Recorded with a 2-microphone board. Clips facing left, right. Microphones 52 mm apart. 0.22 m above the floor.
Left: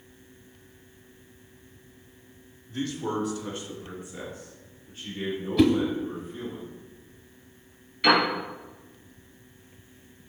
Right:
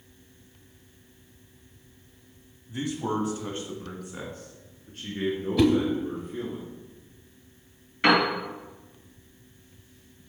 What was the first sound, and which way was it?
A man speaking, 10° right (ahead or behind).